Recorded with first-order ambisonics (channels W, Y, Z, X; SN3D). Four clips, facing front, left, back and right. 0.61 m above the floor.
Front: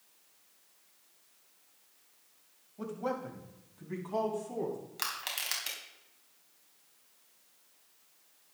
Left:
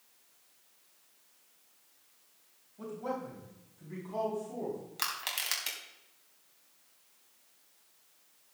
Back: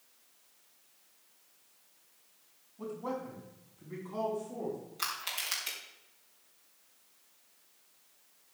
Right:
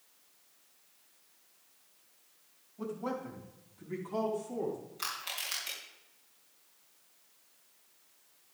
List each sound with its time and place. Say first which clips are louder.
2.8 s a man speaking: even, front 2 dB; straight ahead, 4.5 m; by 4.8 s 15° right, 6.5 m
5.0 s crushing: left 4 dB, even; 55° left, 4.5 m